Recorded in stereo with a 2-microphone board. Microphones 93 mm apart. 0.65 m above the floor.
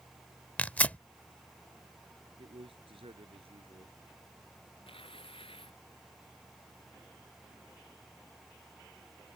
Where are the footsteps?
I don't hear footsteps.